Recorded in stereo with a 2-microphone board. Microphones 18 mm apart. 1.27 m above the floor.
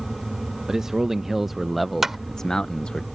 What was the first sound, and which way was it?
A man speaking, 30° right (ahead or behind).